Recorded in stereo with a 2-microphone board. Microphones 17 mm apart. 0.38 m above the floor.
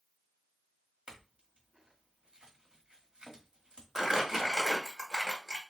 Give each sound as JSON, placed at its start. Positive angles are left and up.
{"t": 1.1, "sound": "a clink", "side_deg": -65, "distance_m": 1.5}
{"t": 4.0, "sound": "crumpling", "side_deg": -30, "distance_m": 1.4}